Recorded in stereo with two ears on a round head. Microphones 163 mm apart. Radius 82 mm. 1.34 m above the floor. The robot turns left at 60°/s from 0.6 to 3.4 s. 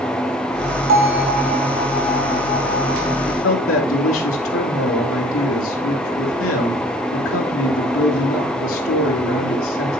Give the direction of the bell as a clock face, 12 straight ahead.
3 o'clock.